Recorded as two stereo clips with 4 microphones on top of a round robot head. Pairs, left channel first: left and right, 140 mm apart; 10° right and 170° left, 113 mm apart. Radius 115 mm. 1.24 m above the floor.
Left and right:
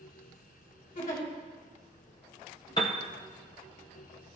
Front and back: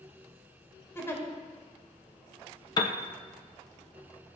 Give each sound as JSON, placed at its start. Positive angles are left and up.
{"t": 0.9, "sound": "a giggle", "azimuth_deg": 55, "distance_m": 2.5}
{"t": 2.8, "sound": "a piano", "azimuth_deg": 25, "distance_m": 0.6}